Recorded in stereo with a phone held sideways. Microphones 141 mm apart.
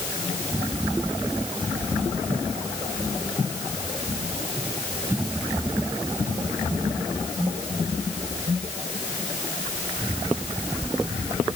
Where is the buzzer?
I don't hear a buzzer.